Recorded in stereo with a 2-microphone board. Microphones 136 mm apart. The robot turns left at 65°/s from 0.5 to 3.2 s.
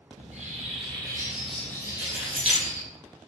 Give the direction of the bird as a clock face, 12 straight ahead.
4 o'clock.